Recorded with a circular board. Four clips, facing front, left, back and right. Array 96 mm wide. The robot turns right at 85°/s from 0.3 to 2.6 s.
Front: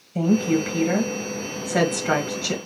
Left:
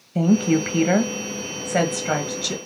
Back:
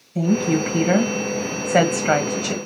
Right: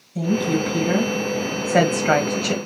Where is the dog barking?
I don't hear a dog barking.